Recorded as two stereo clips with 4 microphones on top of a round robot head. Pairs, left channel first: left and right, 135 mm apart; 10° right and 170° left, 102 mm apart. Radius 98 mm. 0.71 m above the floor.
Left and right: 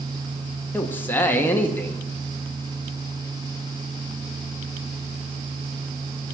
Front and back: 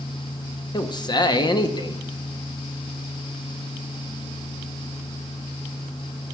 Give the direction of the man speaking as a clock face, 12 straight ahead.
11 o'clock.